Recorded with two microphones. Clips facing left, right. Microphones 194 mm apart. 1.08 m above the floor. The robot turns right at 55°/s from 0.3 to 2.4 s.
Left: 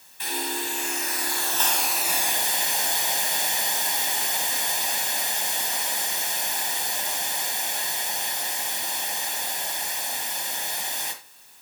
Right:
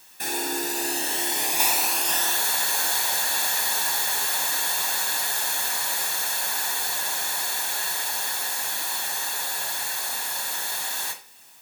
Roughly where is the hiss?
Right.